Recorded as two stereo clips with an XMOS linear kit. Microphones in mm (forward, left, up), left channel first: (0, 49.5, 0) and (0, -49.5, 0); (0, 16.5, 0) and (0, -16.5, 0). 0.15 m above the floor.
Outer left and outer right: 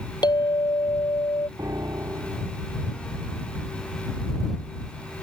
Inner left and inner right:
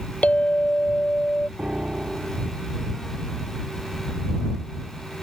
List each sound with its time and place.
0.2 s a clink: 45° left (ahead or behind)
1.6 s a piano: 35° right (ahead or behind)